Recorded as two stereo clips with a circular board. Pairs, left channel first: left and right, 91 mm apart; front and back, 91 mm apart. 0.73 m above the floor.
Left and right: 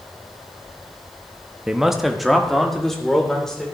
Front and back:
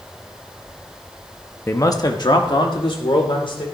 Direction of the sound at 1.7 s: 15° right.